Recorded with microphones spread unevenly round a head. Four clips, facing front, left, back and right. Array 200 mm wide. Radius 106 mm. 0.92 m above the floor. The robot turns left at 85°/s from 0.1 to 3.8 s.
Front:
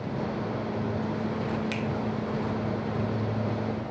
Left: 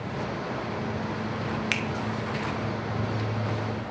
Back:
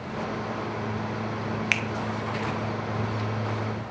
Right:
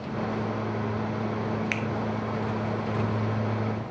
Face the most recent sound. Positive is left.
turn(degrees=-25)